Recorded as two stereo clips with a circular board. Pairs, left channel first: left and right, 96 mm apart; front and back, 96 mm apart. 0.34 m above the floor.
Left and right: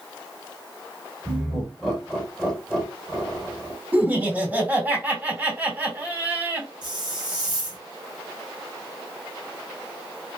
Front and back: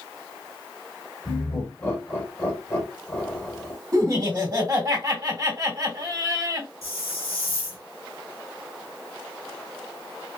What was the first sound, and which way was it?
Laughter, 5° left.